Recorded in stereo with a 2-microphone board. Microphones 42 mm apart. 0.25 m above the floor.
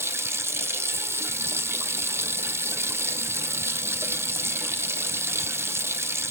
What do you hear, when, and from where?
0.0 s running water: 80° right, 0.7 m